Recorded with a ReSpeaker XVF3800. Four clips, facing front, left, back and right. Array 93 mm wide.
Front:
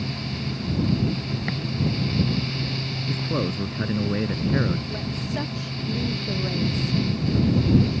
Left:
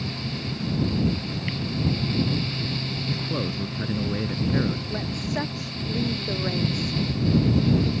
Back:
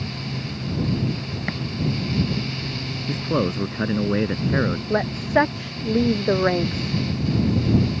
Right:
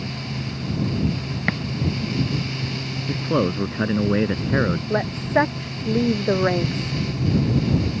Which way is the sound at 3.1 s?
120° right.